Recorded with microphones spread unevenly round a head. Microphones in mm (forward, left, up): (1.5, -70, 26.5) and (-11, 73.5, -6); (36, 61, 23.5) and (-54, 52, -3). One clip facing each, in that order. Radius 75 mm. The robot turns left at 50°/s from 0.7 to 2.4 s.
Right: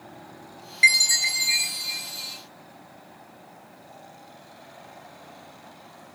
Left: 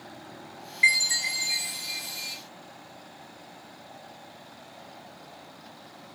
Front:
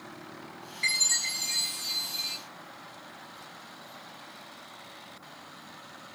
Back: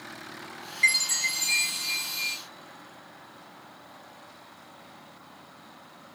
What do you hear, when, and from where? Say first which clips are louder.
0.8 s a chime: right 4 dB, back 7 dB; 120° right, 0.7 m; by 2.4 s 160° left, 0.7 m